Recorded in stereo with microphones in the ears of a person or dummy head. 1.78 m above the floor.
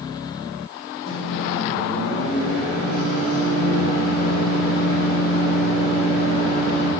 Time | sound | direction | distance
1.1 | a microwave | 70° left (ahead or behind) | 3 m